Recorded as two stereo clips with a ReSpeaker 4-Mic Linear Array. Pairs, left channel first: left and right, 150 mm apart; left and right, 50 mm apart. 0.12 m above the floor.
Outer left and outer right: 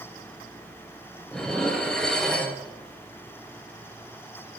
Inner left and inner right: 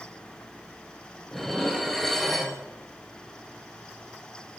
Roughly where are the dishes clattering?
Centre.